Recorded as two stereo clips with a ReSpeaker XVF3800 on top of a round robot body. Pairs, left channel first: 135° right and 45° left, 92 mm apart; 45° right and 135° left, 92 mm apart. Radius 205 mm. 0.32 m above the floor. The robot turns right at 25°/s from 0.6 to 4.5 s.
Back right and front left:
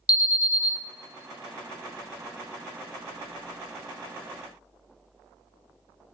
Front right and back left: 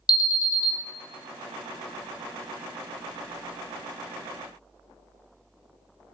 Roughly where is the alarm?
Right.